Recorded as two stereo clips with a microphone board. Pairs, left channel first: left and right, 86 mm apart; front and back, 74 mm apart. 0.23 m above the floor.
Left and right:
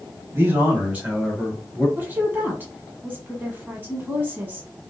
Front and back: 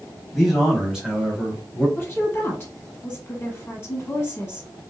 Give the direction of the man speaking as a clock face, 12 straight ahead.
3 o'clock.